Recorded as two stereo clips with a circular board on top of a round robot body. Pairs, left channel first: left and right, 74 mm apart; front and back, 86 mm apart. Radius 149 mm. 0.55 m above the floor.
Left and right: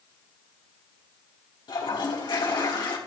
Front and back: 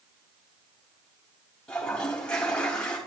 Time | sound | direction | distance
1.7 | a toilet flushing | 80° left | 3.5 m